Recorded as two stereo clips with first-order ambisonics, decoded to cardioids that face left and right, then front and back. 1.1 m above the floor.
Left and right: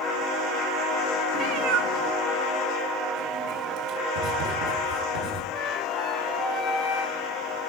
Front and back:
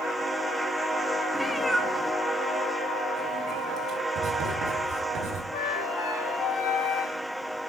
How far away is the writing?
About 3.5 m.